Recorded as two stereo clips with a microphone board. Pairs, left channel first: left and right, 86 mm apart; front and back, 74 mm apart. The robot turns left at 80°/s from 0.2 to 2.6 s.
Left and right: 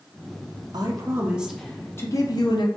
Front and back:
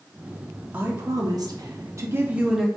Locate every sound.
0.7 s a woman speaking: 120° right, 0.6 m; by 2.7 s 95° left, 0.6 m